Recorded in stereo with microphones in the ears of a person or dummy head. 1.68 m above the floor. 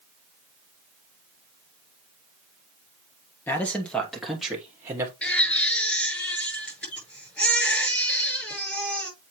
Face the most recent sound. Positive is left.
turn(degrees=5)  # may be behind; listen again after turning